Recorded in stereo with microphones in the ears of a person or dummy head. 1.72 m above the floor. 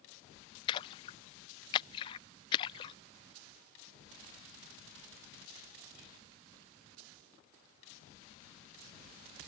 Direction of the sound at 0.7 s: 30° left (ahead or behind).